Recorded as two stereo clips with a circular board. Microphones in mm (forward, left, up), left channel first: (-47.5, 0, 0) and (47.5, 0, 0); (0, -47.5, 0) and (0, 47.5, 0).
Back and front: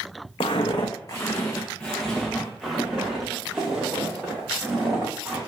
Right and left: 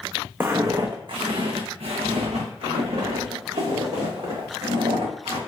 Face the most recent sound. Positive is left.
turn(degrees=75)